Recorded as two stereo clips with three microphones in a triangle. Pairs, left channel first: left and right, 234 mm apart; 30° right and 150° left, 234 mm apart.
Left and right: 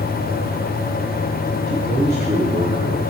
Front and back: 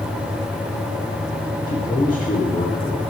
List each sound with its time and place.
1.7 s a man speaking: 70° right, 1.3 m